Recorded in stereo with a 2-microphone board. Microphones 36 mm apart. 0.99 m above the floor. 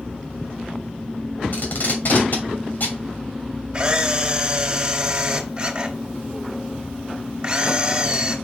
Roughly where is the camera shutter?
Right.